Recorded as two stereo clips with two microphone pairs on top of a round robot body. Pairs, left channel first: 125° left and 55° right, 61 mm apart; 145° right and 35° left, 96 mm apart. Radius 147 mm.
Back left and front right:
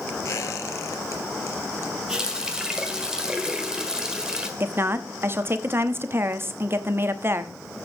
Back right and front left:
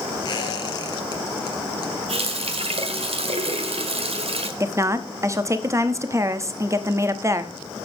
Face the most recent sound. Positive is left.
turn(degrees=-10)